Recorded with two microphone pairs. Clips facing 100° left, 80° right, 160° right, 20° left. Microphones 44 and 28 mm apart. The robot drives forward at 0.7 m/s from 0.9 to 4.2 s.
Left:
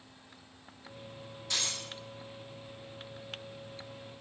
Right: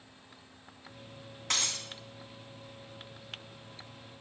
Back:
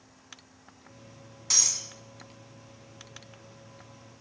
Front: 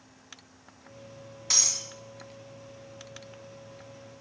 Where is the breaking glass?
60° right, 2.5 m; by 1.9 s 65° right, 2 m.